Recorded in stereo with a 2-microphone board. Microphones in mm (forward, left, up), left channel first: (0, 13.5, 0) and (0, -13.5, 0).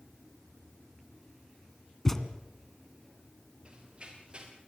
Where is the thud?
20° left (ahead or behind), 1.9 m.